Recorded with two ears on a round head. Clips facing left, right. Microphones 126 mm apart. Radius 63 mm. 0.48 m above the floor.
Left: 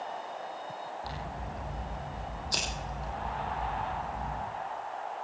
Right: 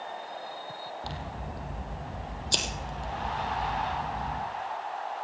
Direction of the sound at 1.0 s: 30° right (ahead or behind).